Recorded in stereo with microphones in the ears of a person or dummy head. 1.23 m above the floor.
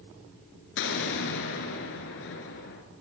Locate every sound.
0.8 s an explosion: 70° left (ahead or behind), 2.5 m